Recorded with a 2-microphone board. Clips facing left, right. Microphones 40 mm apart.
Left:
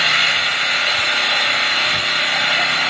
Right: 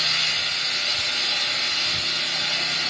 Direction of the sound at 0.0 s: 45° left (ahead or behind).